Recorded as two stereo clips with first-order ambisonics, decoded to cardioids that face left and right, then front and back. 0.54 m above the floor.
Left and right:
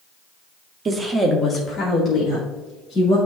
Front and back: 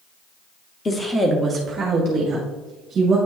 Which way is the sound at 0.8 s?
55° right.